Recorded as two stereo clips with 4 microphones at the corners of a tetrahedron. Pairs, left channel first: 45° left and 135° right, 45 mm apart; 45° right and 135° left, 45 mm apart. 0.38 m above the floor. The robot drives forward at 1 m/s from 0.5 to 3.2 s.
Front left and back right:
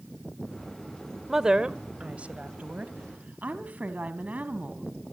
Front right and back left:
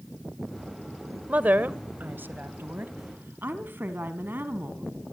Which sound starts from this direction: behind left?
A woman speaking, at 1.3 s.